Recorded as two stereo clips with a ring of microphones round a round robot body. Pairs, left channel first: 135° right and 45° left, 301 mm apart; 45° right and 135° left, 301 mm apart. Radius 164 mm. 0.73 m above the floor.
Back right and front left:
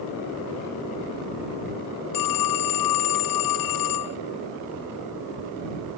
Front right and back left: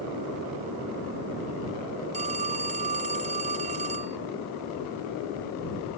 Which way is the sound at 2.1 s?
155° right.